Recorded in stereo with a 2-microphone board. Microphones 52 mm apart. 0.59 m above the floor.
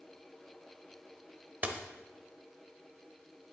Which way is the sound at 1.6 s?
35° right (ahead or behind).